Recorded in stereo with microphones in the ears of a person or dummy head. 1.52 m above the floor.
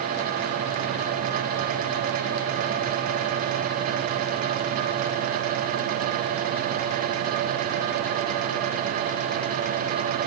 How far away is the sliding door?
No sliding door in this recording.